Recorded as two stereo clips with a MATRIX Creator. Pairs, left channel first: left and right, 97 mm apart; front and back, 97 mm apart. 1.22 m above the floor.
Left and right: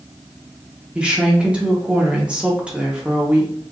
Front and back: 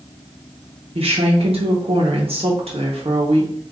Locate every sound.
0.9 s a woman speaking: 170° right, 1.2 m